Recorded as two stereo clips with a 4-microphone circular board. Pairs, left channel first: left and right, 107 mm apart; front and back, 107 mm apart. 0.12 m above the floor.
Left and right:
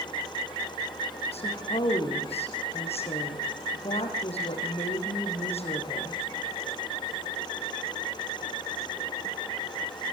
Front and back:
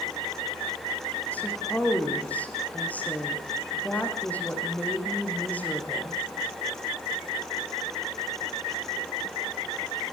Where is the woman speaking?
75° left, 6 m.